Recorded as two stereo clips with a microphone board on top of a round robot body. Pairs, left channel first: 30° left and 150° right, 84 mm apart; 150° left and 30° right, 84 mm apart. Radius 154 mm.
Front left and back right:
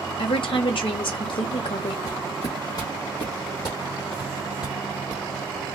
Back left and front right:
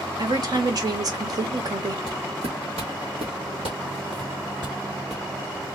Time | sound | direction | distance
0.2 | a woman speaking | 15° left | 1.6 m
2.1 | footsteps | 15° right | 1.9 m